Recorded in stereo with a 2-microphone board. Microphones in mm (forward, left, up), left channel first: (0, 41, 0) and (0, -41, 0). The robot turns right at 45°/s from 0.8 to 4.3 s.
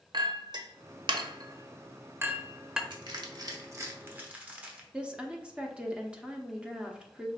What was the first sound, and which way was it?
A clink, 60° right (ahead or behind).